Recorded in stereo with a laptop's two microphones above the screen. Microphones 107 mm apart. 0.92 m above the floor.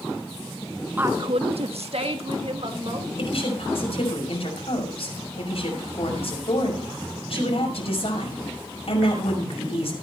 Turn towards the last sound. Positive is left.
turn(degrees=65)  # may be behind; listen again after turning